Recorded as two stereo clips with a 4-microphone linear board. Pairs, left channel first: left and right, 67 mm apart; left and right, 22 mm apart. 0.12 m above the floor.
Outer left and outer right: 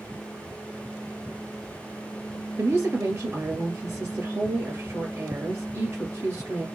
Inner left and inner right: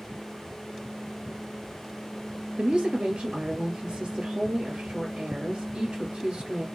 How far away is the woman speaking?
About 1.9 m.